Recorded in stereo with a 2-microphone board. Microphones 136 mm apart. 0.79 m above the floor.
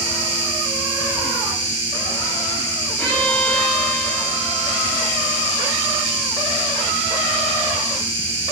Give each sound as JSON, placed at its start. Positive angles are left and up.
{"t": 0.0, "sound": "an insect", "side_deg": -45, "distance_m": 3.0}
{"t": 3.0, "sound": "a violin", "side_deg": 10, "distance_m": 3.5}